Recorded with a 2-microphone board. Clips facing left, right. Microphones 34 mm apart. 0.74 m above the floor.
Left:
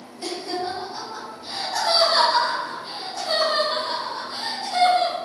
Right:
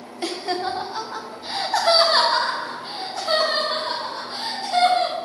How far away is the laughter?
About 0.8 m.